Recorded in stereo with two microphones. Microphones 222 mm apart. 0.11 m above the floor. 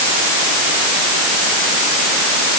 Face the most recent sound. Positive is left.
No sound to turn to.